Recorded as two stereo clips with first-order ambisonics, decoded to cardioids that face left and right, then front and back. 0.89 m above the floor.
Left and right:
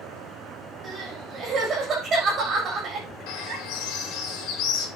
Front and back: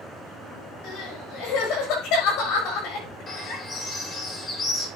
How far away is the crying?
About 7 m.